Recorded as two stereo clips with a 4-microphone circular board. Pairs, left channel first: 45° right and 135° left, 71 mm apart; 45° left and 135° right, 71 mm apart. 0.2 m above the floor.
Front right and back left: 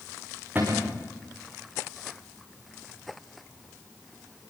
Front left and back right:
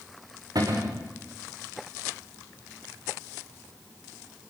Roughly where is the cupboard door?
Behind.